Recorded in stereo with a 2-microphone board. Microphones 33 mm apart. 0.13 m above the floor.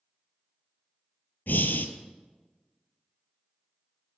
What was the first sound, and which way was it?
Breathing, 75° left (ahead or behind).